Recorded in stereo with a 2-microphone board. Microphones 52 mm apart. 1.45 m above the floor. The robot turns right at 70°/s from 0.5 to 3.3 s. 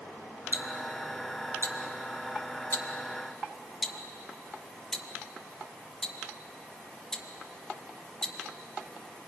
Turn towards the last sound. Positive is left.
turn(degrees=10)  # may be behind; listen again after turning